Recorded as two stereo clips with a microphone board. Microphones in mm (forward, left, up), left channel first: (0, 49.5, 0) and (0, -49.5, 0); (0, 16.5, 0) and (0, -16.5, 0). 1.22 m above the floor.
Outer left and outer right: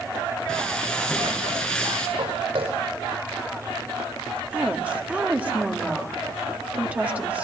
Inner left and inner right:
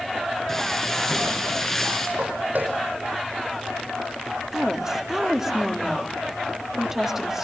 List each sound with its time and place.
0.5 s frying: 10° left (ahead or behind), 6.5 m
2.2 s footsteps: 75° right (ahead or behind), 5.5 m
4.5 s a woman speaking: 15° right (ahead or behind), 1.9 m